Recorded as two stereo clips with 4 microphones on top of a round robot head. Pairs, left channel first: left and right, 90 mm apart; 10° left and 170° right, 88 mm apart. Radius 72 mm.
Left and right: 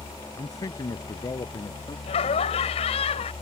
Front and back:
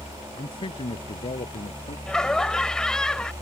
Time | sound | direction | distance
0.4 | a man speaking | 40° left | ?
2.1 | laughter | 90° left | ?